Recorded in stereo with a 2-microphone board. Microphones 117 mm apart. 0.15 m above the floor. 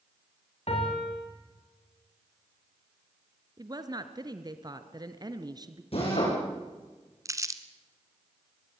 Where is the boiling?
No boiling in this recording.